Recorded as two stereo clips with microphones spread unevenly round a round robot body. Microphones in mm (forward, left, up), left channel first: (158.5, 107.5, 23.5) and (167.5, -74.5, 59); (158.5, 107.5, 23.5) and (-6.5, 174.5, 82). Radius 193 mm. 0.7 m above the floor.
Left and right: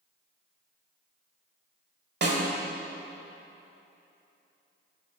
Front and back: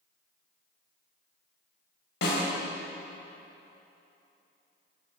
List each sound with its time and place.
2.2 s a snare drum: 60° right, 2 m